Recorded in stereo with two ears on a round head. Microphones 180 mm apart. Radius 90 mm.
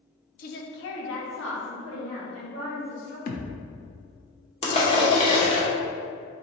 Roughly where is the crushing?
Left.